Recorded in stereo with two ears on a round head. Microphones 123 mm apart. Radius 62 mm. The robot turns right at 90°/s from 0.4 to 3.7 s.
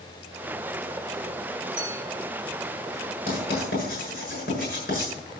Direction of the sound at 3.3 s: 55° left (ahead or behind).